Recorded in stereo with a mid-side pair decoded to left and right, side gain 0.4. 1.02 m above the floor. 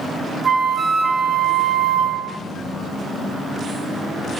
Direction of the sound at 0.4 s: 45° right.